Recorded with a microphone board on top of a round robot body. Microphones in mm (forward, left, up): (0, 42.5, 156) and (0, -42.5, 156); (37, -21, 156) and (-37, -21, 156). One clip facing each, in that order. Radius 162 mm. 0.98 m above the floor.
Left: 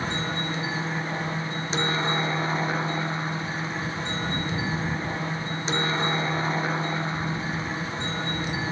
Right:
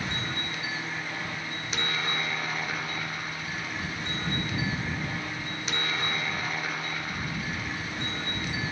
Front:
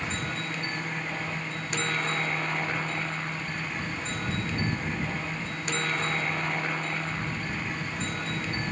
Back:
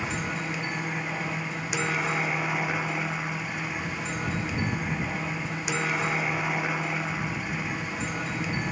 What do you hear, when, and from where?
0.0 s a helicopter: 110° left